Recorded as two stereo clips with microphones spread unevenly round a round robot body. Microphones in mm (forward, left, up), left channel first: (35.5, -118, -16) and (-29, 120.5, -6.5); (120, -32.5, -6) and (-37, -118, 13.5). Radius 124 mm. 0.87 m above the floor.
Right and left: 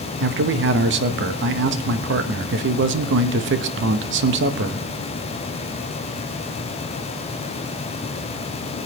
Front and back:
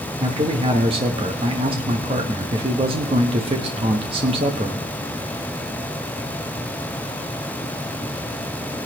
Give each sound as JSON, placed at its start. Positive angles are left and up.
{"t": 0.2, "sound": "a man speaking", "azimuth_deg": 145, "distance_m": 0.9}